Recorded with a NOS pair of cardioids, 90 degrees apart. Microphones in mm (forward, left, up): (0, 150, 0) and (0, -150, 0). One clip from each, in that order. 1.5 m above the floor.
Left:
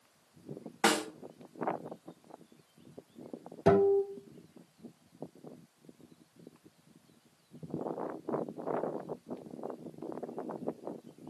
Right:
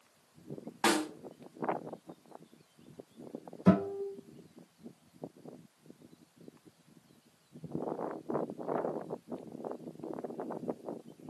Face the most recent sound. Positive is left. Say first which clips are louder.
# left 6 dB
turn(degrees=55)